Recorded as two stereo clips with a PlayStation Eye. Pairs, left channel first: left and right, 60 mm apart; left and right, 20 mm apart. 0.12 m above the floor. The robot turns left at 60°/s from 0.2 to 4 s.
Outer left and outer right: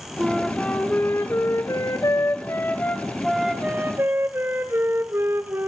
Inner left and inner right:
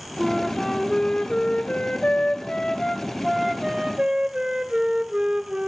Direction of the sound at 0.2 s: 170° right.